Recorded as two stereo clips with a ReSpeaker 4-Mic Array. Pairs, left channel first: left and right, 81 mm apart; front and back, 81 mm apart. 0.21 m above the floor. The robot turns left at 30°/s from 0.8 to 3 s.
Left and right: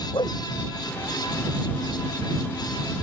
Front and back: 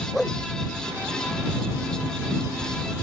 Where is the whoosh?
85° left.